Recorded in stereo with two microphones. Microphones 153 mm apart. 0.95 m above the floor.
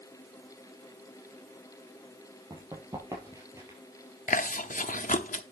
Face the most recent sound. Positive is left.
turn(degrees=60)  # may be behind; listen again after turning